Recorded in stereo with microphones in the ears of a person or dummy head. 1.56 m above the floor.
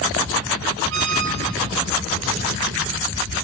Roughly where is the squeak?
Right.